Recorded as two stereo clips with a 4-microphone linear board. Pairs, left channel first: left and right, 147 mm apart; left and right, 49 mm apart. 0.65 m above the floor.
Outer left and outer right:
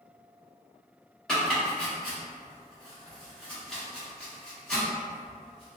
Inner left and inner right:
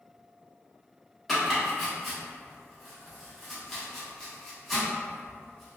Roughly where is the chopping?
Centre.